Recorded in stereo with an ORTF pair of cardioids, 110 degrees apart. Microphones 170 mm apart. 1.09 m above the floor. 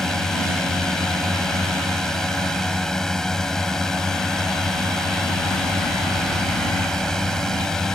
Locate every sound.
0.0 s a drone: 5° left